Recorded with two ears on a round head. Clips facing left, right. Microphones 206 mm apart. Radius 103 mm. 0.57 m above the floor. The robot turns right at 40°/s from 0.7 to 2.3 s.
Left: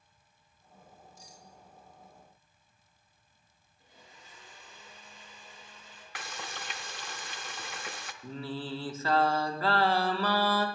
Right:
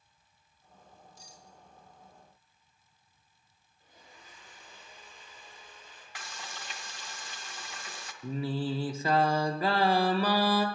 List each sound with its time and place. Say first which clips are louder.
1.2 s cutlery clinking: left 1 dB; 30° right (ahead or behind), 1.4 m; by 1.5 s 20° right (ahead or behind), 1.4 m
3.8 s a blender: even; 65° left (ahead or behind), 6 m
6.2 s frying: left 4 dB; 50° left (ahead or behind), 0.6 m
8.2 s singing: right 6 dB; 15° right (ahead or behind), 0.6 m